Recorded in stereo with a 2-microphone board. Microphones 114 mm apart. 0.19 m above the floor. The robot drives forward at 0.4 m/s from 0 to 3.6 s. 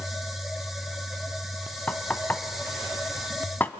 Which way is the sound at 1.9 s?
15° left (ahead or behind).